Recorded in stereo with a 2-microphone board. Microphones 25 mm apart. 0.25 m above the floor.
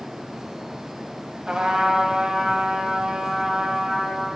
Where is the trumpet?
35° right (ahead or behind), 1.0 m.